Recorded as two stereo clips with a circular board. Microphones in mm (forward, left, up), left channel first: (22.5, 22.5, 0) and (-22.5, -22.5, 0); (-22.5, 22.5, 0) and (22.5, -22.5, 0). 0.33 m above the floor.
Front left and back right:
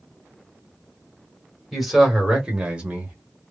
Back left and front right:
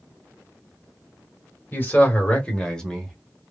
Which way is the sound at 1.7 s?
135° left.